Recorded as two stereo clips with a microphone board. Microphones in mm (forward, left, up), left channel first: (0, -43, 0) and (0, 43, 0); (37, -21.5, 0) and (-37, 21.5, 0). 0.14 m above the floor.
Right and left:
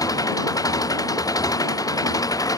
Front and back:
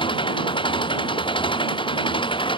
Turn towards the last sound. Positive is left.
turn(degrees=-45)